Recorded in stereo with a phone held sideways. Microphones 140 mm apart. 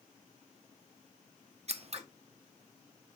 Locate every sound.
1.7 s scissors: 50° right (ahead or behind), 0.6 m